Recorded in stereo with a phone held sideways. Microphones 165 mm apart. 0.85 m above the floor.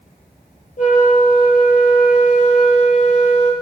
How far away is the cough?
I don't hear a cough.